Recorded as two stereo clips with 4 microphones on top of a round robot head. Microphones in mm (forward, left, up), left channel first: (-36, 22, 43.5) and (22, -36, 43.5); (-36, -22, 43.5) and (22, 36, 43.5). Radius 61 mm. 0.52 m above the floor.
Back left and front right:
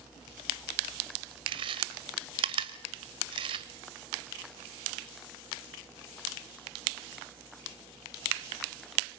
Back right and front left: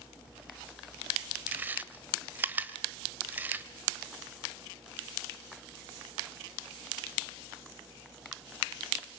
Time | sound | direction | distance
1.5 | chewing | 25° right | 1.4 m